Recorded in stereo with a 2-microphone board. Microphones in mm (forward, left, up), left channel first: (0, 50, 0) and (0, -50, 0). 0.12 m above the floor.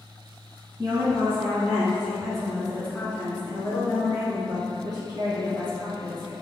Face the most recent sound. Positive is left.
turn(degrees=50)  # may be behind; listen again after turning